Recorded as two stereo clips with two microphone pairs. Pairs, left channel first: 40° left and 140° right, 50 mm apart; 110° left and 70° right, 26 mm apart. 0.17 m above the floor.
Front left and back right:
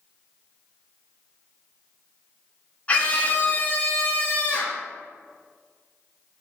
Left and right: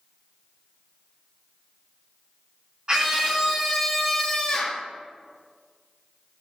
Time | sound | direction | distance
2.9 | a scream | 20° right | 2.5 m